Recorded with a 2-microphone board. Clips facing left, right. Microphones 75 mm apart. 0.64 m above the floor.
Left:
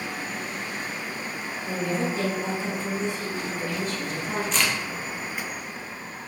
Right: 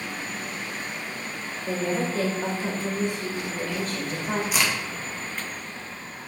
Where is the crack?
10° right (ahead or behind), 1.8 m.